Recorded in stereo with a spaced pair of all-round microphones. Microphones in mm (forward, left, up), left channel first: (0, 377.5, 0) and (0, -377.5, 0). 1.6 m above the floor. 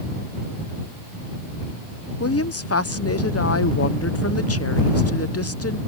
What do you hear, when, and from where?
2.2 s a woman speaking: 20° left (ahead or behind)